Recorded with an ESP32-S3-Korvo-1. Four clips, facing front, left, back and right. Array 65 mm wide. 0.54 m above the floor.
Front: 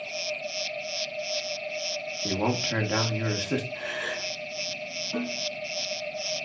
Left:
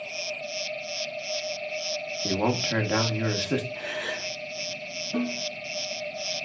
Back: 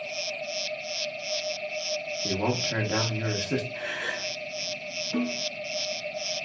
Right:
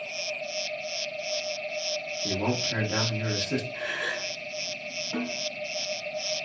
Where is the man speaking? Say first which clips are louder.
Left 3 dB, front 1 dB; 70° left, 0.7 m.